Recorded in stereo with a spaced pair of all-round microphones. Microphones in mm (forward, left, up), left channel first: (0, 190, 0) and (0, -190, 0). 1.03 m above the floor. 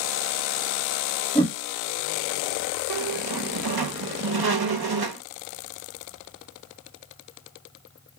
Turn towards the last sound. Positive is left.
turn(degrees=-70)  # may be behind; listen again after turning